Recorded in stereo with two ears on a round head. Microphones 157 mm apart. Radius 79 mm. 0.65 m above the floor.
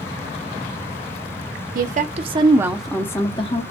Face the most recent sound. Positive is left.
turn(degrees=35)  # may be behind; listen again after turning